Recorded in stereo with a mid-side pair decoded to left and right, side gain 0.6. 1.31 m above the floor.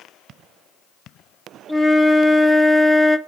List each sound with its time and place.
1.7 s a flute: 10° right, 2.5 m